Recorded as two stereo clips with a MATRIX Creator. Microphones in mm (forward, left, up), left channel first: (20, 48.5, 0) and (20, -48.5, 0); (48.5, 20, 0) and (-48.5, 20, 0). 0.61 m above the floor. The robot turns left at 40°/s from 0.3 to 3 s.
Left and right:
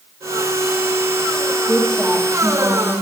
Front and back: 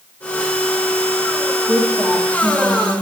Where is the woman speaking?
160° right, 1.0 m; by 2.9 s 150° left, 1.0 m.